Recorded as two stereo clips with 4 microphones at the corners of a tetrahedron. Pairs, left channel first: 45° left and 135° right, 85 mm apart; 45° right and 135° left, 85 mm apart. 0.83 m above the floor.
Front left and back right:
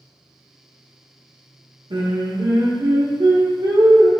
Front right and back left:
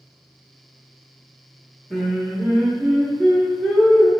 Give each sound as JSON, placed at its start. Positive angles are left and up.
{"t": 1.9, "sound": "singing", "azimuth_deg": -135, "distance_m": 1.0}